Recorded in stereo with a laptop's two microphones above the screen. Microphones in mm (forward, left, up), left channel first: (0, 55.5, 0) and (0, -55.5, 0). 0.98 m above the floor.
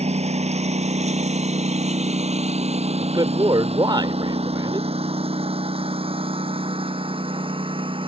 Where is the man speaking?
40° right (ahead or behind).